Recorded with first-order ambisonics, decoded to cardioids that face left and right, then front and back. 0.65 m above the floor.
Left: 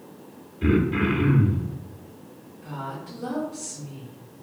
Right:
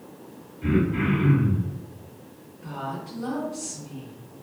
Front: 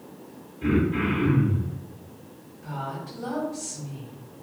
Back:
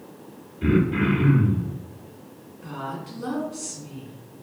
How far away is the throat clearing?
About 0.8 m.